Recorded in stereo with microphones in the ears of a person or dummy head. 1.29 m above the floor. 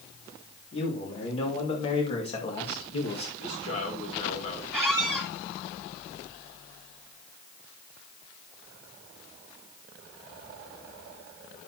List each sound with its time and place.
0.7 s a man speaking: 35° left (ahead or behind), 3.5 m
3.4 s a man speaking: 45° left (ahead or behind), 3.5 m
4.7 s a squeak: centre (ahead or behind), 2.5 m